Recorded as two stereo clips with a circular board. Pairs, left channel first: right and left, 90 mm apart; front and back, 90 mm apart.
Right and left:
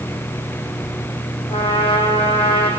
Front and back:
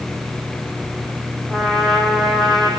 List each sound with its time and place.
1.5 s a trumpet: 85° right, 5 m